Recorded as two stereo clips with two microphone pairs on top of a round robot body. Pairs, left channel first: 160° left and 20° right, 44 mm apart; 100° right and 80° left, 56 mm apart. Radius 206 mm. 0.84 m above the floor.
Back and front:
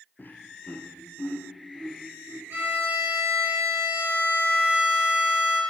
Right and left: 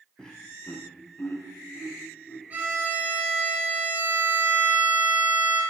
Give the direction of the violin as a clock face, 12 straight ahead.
11 o'clock.